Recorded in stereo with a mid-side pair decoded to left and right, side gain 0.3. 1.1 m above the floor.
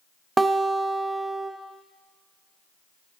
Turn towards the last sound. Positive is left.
turn(degrees=-35)